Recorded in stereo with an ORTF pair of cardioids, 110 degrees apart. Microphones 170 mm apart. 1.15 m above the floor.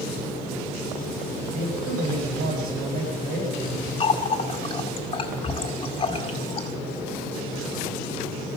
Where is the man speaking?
65° right, 7.5 m.